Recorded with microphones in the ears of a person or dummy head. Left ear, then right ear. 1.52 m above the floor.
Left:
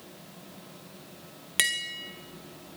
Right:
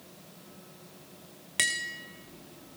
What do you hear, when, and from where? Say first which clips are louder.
1.6 s tapping: left 2 dB; 10° left (ahead or behind), 1.3 m